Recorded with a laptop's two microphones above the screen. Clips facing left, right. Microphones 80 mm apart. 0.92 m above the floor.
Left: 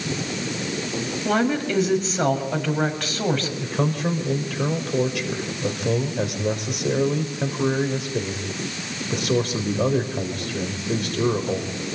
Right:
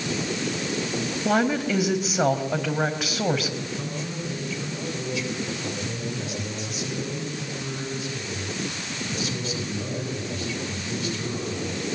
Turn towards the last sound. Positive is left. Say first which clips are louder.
# left 8 dB
turn(degrees=60)  # may be behind; listen again after turning